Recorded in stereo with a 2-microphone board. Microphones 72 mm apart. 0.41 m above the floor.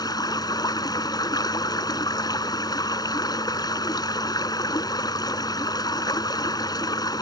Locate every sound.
0.0 s running water: 70° left (ahead or behind)